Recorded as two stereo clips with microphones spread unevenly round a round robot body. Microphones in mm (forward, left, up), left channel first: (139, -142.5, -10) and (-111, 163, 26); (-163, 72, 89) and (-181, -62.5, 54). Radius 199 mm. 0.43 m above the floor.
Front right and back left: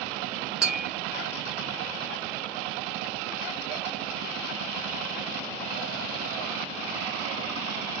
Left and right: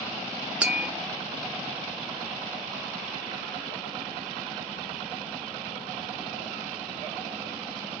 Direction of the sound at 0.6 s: 135° right.